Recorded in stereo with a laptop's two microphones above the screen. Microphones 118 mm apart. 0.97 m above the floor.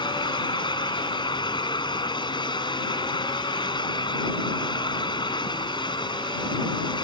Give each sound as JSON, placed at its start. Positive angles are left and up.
{"t": 0.0, "sound": "a fan", "side_deg": 40}